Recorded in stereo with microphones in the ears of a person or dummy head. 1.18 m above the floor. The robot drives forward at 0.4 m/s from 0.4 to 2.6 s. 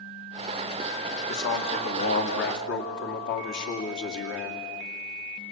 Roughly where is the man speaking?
Left.